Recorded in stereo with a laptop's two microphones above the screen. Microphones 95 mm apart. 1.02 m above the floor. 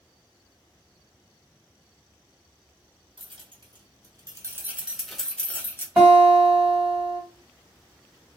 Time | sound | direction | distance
3.2 | keys jangling | 65° right (ahead or behind) | 1.1 m
6.0 | a guitar | 15° right (ahead or behind) | 1.6 m